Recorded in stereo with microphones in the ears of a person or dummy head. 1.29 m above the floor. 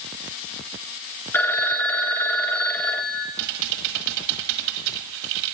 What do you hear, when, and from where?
1.3 s a phone ringing: 15° left (ahead or behind), 0.8 m
3.4 s typing on a keyboard: 75° right (ahead or behind), 1.4 m